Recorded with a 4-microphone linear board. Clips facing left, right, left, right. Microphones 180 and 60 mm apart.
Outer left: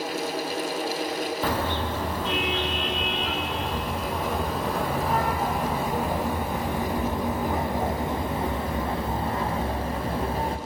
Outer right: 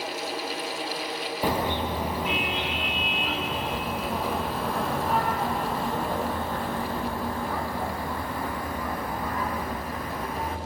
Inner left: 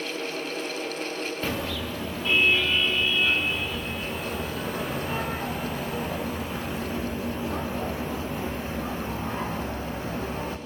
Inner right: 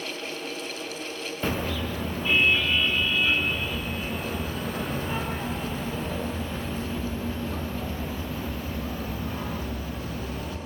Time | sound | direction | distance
1.4 | a car horn | 15° right (ahead or behind) | 6.5 m